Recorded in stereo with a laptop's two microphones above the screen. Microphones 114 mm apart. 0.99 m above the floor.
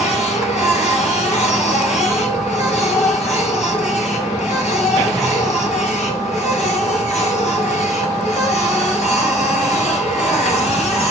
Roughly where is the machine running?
Left.